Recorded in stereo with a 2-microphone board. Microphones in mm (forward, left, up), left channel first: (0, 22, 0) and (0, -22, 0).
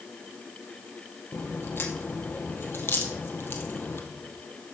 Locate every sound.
1.3 s a crack: 60° left (ahead or behind), 2 m